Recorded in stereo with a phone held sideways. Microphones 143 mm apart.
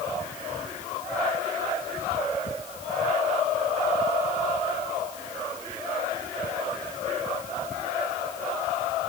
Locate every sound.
Only background noise.